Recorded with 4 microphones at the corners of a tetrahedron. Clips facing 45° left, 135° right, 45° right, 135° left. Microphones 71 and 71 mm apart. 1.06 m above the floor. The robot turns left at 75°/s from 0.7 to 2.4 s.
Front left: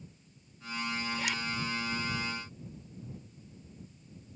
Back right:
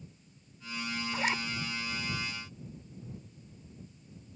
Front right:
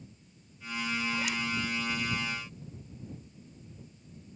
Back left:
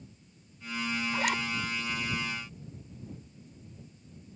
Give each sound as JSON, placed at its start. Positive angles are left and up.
{"t": 1.1, "sound": "a zipper", "azimuth_deg": 180}